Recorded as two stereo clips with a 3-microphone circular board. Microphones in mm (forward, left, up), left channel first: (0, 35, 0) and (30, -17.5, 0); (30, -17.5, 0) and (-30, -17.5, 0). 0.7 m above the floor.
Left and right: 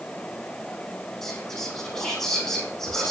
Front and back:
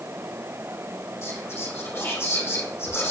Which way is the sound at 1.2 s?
40° left.